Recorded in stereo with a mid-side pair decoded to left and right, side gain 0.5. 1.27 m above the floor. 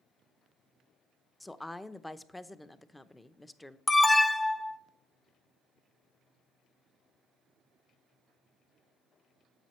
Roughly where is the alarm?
Ahead.